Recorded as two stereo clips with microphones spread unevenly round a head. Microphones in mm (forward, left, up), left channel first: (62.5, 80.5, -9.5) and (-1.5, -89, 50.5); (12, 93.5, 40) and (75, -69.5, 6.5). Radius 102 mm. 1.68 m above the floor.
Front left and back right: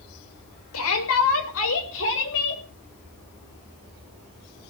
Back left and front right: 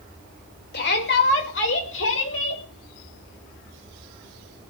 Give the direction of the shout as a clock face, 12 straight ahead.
9 o'clock.